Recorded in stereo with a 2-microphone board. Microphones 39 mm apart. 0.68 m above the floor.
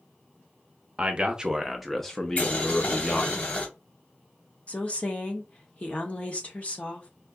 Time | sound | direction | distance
1.0 | a man speaking | 30° right (ahead or behind) | 0.8 m
2.4 | boiling | 40° left (ahead or behind) | 1.6 m
4.7 | a woman speaking | 35° left (ahead or behind) | 1.2 m